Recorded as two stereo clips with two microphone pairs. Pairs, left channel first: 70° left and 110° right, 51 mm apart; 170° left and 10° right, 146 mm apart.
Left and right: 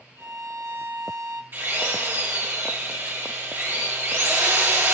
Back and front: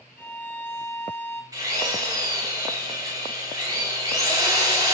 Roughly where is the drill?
Right.